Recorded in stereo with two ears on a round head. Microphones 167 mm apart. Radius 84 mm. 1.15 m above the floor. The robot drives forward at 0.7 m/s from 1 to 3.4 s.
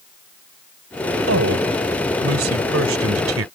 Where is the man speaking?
70° right (ahead or behind); by 3.5 s 85° right.